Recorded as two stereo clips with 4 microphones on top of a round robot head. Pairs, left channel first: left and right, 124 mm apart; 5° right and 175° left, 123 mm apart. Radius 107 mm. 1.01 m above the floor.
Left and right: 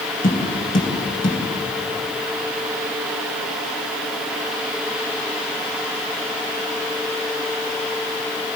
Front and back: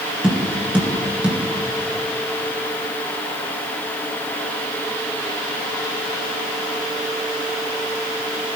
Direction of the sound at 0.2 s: 95° left.